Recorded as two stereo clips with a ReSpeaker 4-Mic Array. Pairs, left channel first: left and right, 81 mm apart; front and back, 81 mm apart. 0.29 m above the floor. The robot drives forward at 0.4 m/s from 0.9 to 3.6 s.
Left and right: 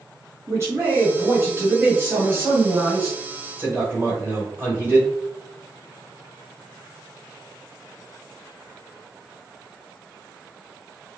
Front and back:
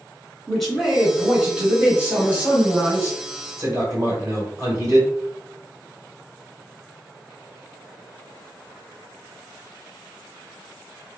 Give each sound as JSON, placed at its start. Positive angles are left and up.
{"t": 0.5, "sound": "a man speaking", "azimuth_deg": -90, "distance_m": 1.3}